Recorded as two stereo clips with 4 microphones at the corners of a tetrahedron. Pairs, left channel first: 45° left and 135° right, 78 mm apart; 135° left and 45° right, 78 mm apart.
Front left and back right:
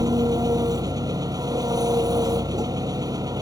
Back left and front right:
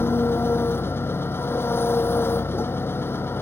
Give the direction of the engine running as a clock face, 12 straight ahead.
6 o'clock.